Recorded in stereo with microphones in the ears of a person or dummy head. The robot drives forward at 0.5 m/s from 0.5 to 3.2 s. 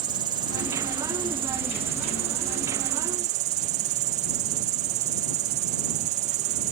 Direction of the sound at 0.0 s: 25° right (ahead or behind).